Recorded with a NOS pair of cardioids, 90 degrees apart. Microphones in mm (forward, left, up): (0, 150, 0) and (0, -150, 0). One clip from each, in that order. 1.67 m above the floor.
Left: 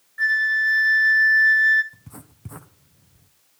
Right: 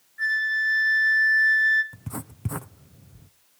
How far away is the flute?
About 3 m.